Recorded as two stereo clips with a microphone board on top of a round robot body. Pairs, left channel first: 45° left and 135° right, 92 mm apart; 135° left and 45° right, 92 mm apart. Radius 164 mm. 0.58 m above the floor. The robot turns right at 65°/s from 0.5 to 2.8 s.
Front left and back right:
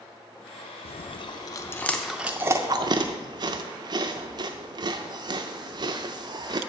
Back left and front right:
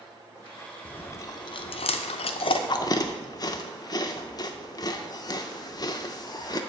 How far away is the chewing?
About 0.5 m.